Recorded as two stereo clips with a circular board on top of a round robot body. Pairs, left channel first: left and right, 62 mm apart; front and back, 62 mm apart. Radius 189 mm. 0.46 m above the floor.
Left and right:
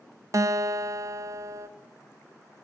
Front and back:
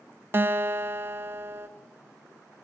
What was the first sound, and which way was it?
A guitar, 125° right.